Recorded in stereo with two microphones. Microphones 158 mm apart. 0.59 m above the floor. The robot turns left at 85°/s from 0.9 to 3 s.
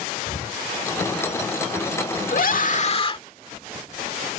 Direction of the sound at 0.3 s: 75° left (ahead or behind).